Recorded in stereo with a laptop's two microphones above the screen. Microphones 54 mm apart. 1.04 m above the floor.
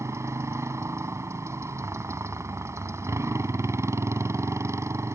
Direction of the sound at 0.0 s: 60° right (ahead or behind).